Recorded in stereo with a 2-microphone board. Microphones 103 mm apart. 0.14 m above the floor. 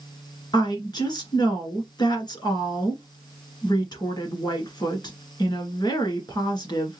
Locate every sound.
0.5 s a woman speaking: 45° left (ahead or behind), 1.7 m